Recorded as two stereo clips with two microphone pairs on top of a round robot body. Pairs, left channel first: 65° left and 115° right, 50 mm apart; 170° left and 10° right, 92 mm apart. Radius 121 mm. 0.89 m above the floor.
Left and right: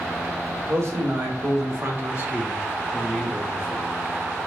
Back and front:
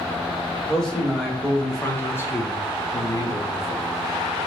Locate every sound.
0.7 s a man speaking: 105° right, 1.6 m; by 3.9 s 130° left, 1.1 m